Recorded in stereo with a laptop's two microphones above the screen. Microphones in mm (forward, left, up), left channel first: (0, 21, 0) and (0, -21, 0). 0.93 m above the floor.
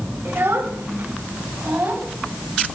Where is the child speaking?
70° right (ahead or behind), 2.5 m; by 2.1 s 60° right (ahead or behind), 4 m.